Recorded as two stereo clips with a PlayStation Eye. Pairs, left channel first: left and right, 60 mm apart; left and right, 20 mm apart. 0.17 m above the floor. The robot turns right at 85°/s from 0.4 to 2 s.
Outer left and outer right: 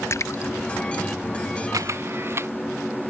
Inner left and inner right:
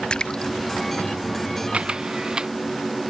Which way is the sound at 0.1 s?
45° left (ahead or behind).